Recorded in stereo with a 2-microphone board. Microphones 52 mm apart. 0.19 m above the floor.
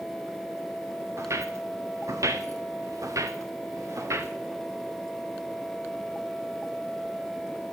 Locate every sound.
1.2 s footsteps: 60° right (ahead or behind), 1.6 m